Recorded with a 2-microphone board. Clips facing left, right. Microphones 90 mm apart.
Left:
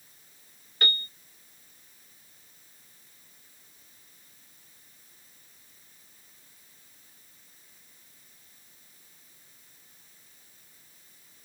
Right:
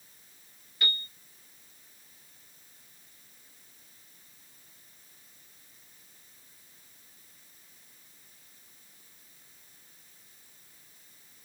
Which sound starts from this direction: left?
A piano, at 0.8 s.